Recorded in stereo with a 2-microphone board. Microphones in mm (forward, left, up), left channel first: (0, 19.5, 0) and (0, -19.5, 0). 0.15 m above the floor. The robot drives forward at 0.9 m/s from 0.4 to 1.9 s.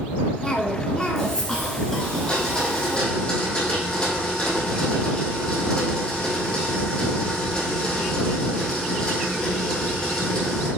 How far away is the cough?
About 1.0 m.